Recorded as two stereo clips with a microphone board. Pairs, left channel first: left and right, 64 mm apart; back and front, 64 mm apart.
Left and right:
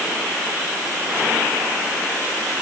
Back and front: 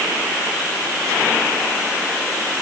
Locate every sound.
Only background noise.